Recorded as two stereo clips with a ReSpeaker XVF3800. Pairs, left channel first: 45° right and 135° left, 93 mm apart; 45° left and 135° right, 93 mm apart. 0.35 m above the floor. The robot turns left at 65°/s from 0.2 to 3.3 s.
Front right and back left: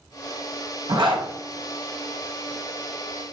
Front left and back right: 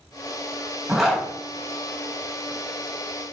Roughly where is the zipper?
Behind left.